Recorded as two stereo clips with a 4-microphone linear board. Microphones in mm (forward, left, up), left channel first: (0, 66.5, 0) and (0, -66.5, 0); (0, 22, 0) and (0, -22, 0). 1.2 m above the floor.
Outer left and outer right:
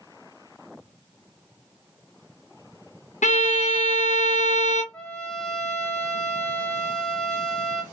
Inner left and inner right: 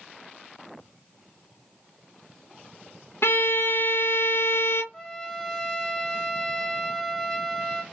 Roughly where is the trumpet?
Centre.